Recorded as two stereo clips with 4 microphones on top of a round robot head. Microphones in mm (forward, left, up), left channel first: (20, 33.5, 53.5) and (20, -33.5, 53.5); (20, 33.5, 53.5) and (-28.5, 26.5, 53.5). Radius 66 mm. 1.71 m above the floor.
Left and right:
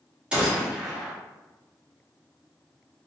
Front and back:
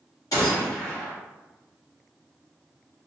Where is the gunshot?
15° right, 0.7 m.